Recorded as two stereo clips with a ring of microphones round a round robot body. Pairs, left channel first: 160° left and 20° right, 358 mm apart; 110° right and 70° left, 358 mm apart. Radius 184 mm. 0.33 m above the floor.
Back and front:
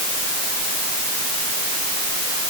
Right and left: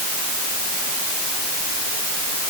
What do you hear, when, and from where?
Only background noise.